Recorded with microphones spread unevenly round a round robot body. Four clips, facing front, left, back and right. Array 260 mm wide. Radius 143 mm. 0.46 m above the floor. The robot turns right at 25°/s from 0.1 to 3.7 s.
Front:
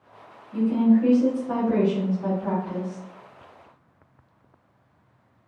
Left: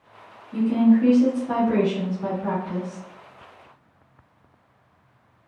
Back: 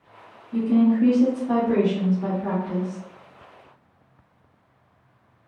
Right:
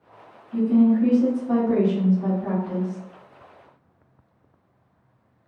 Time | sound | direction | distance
0.5 | a woman speaking | 160° left | 0.9 m